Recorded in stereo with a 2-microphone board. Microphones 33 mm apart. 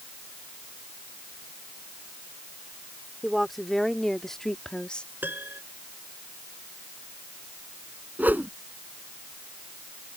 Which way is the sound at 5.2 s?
85° right.